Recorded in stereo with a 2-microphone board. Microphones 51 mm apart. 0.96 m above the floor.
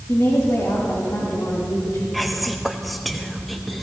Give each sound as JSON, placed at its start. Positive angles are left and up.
{"t": 0.1, "sound": "a woman speaking", "side_deg": 70, "distance_m": 3.0}
{"t": 2.1, "sound": "whispering", "side_deg": 0, "distance_m": 0.6}